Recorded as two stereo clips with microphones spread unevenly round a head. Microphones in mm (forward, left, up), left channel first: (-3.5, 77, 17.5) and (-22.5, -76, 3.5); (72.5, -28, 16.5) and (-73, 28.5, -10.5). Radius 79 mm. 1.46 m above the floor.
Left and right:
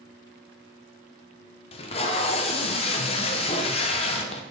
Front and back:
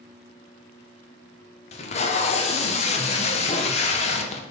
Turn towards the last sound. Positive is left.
turn(degrees=30)